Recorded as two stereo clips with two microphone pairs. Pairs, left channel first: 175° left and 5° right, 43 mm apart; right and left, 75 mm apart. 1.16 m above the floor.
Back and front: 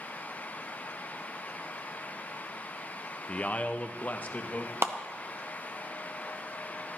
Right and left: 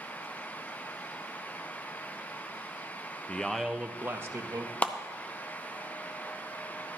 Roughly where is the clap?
Ahead.